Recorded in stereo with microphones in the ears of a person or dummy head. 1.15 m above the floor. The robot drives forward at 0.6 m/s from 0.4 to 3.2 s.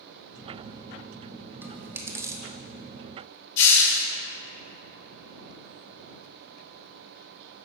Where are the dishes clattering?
I don't hear dishes clattering.